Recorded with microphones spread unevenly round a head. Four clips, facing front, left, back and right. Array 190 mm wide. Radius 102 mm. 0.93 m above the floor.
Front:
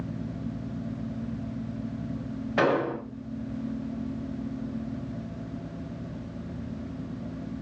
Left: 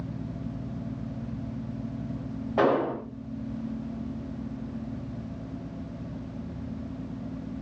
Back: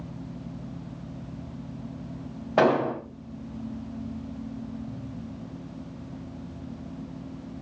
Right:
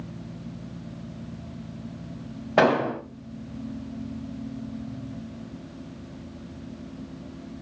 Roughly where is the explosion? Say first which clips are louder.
Right 3 dB, back 3 dB; right.